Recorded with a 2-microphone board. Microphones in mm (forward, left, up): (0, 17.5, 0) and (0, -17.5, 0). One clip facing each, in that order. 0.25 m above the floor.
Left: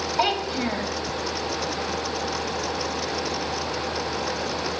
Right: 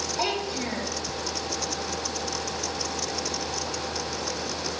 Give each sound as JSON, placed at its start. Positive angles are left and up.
{"t": 0.2, "sound": "a child speaking", "side_deg": 30, "distance_m": 0.9}